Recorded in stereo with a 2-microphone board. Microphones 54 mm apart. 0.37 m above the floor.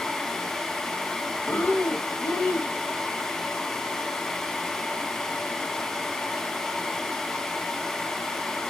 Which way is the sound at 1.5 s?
45° left (ahead or behind).